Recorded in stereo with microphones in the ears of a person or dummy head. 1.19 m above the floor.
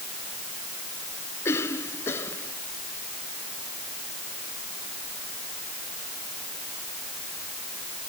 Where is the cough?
15° left (ahead or behind).